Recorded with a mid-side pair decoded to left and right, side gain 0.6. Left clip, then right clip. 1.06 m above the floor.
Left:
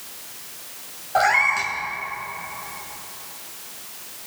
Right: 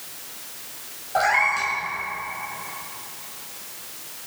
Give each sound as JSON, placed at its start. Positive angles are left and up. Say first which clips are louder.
{"t": 1.1, "sound": "a cat meowing", "louder": "left 2 dB", "azimuth_deg": 15, "distance_m": 2.0}